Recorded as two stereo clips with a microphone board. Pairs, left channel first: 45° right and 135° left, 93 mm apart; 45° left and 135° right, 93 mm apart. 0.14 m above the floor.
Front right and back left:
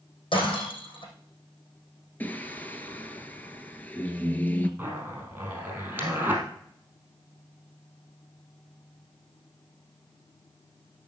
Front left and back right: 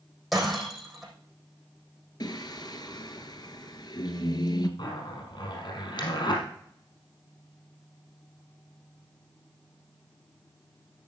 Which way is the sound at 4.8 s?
65° left.